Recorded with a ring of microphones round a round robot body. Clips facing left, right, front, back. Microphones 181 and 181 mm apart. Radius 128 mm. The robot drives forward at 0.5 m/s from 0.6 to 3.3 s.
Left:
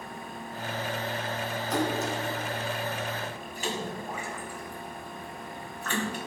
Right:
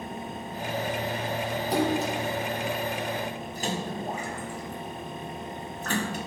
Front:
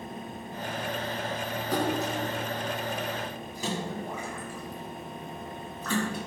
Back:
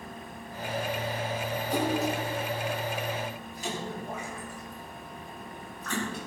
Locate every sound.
1.7 s a splash: 35° right, 4.5 m; by 6.3 s 40° right, 4 m